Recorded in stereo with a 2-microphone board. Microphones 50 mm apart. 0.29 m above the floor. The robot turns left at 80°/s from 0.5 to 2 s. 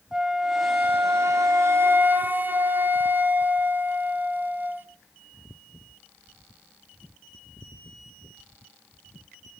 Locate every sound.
0.1 s a flute: 15° right, 1.7 m; by 4.9 s 135° right, 1.7 m